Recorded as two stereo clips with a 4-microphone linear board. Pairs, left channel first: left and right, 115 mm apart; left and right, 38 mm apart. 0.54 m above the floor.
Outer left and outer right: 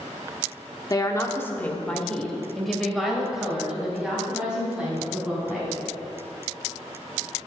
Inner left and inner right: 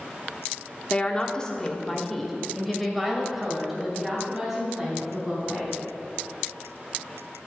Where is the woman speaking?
30° left (ahead or behind), 1.0 m; by 5.8 s 10° right (ahead or behind), 4.5 m.